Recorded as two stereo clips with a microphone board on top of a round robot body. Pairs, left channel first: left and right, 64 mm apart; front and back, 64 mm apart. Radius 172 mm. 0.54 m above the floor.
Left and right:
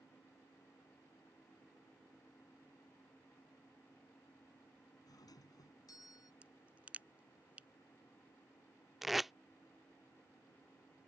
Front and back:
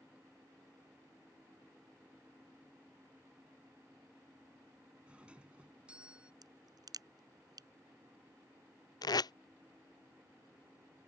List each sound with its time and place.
5.1 s a doorbell: 110° left
6.4 s a crack: 160° right
9.0 s tape being pulled: straight ahead